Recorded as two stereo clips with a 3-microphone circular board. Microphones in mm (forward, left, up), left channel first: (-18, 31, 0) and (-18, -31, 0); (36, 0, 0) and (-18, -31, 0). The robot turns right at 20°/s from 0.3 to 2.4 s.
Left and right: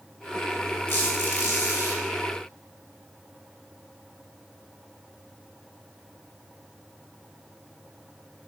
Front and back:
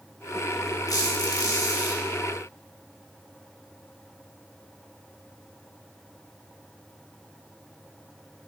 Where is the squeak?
35° left, 2.5 m; by 2.0 s 60° left, 2.5 m.